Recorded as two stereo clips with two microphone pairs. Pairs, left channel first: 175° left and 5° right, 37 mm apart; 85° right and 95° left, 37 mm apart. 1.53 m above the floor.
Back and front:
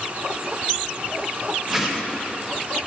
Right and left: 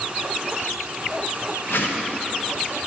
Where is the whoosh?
85° right, 0.9 m.